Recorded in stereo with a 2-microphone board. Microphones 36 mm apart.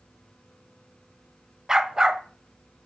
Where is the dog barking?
20° right (ahead or behind), 0.6 m.